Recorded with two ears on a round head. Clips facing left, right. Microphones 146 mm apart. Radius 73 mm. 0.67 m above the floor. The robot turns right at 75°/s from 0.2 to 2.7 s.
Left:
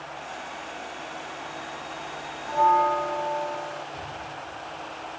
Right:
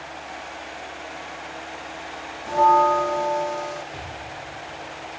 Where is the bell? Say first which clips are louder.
Right 4 dB; 35° right (ahead or behind), 1.5 m; by 3.8 s 50° right (ahead or behind), 1.5 m.